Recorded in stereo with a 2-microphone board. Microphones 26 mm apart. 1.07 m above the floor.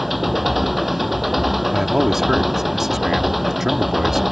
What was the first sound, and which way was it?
An engine running, 5° right (ahead or behind).